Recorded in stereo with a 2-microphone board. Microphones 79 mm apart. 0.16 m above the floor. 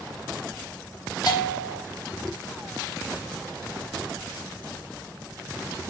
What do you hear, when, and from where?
1.3 s a bell: 55° left (ahead or behind), 3 m